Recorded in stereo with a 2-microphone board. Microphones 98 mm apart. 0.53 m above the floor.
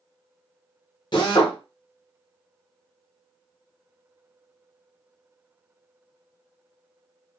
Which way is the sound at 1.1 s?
50° left (ahead or behind).